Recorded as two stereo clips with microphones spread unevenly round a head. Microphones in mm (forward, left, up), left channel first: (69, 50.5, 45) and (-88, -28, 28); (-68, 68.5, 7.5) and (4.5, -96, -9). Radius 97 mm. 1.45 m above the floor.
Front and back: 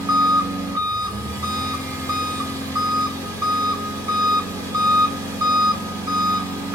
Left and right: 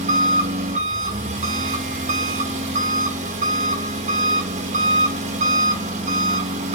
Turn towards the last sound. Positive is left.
turn(degrees=-80)